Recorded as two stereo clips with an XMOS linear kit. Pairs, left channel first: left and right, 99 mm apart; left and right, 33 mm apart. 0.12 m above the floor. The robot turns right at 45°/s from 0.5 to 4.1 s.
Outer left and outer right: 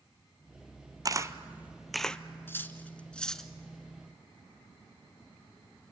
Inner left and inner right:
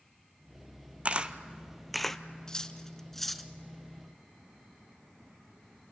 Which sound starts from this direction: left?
Cutlery clinking, at 2.5 s.